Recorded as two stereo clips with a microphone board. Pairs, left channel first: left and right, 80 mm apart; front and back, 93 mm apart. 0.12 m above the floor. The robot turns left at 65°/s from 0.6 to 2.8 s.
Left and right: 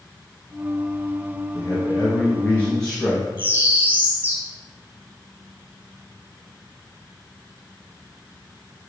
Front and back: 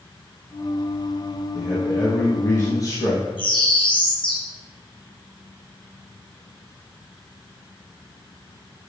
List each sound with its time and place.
1.5 s a man speaking: 95° left, 1.6 m; by 3.3 s 15° left, 1.6 m
3.4 s a bird: 20° right, 2 m